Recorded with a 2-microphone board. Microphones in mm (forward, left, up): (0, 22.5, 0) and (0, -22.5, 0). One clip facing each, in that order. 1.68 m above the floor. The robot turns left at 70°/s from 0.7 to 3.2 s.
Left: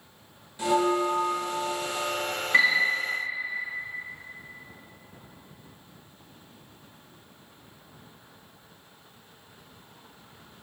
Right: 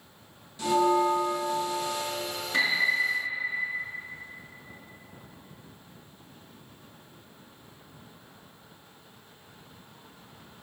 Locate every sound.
0.6 s a bell: 160° left, 2.0 m; by 2.0 s 65° left, 2.0 m
2.5 s a piano: 50° left (ahead or behind), 3 m; by 2.9 s 65° left (ahead or behind), 3 m